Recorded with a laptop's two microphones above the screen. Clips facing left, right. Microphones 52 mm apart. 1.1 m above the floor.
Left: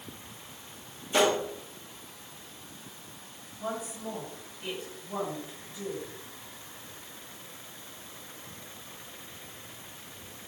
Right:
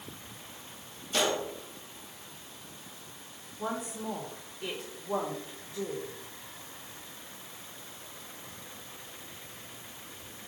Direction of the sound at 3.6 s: 75° right (ahead or behind).